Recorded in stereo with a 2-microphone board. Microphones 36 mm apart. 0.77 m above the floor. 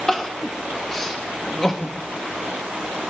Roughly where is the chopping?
I don't hear chopping.